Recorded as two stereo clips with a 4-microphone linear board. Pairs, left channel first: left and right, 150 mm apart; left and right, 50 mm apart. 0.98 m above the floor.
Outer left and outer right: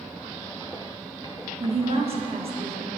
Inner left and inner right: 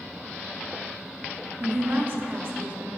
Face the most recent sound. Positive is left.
turn(degrees=-40)  # may be behind; listen again after turning